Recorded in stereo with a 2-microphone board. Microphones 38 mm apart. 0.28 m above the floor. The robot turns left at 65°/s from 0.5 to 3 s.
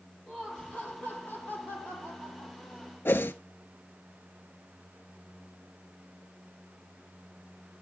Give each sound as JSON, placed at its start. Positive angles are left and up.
{"t": 0.3, "sound": "laughter", "azimuth_deg": 165, "distance_m": 9.5}
{"t": 3.0, "sound": "a whoosh", "side_deg": 80, "distance_m": 0.8}